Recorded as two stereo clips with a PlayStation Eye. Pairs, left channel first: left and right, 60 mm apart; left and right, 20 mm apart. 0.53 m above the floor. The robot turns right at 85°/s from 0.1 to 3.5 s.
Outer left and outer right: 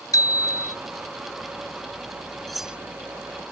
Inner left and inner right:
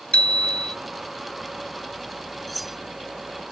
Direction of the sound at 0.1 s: 80° left.